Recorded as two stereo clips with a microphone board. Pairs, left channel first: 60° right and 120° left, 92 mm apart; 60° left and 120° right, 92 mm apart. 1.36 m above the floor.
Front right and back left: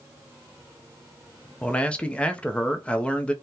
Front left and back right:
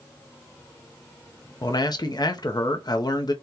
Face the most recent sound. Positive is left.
turn(degrees=20)